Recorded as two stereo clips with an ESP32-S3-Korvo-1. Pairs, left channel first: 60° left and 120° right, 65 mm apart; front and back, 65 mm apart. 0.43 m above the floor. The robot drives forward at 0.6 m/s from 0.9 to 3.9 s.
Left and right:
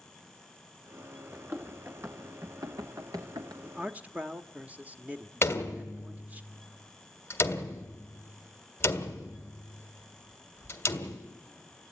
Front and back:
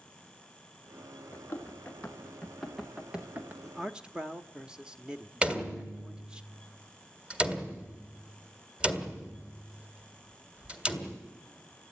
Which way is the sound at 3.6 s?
100° right.